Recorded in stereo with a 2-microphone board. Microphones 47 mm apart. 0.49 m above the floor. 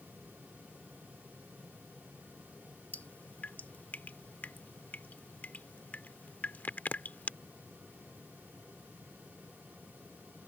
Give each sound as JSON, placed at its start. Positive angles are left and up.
{"t": 2.9, "sound": "dripping", "side_deg": 35}